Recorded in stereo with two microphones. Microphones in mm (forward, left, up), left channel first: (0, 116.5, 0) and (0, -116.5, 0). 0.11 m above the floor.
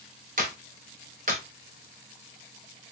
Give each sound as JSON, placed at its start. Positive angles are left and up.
{"t": 0.4, "sound": "a clap", "side_deg": -40, "distance_m": 1.2}